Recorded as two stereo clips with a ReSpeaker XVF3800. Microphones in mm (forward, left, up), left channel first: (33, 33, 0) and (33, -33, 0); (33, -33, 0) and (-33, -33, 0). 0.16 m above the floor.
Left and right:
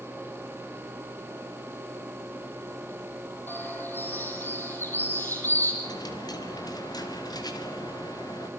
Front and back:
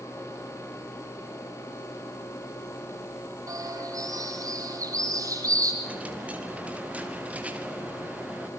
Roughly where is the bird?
Behind left.